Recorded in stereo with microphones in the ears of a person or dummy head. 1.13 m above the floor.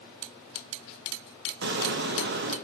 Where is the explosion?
55° right (ahead or behind), 1.0 m.